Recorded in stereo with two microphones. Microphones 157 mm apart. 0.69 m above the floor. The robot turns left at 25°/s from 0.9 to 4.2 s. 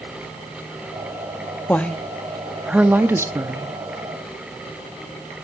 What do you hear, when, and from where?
1.7 s a woman speaking: 15° left, 0.7 m; by 3.8 s 35° right, 0.7 m